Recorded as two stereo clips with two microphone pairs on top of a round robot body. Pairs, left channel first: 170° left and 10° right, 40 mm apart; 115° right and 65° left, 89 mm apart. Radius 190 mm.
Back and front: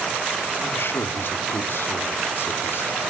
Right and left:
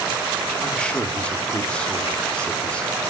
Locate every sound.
0.6 s a man speaking: 170° left, 2 m